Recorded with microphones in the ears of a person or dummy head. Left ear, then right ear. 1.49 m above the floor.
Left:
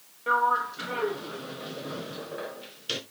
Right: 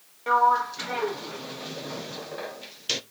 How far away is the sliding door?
About 0.9 m.